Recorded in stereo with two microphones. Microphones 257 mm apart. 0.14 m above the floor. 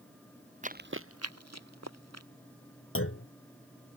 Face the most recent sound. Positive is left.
turn(degrees=55)  # may be behind; listen again after turning